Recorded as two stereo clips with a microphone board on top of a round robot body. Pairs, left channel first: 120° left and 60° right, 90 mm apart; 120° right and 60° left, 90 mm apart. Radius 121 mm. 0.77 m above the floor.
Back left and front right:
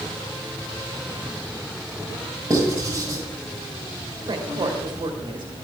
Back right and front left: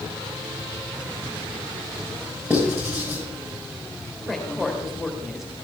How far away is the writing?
About 8.5 m.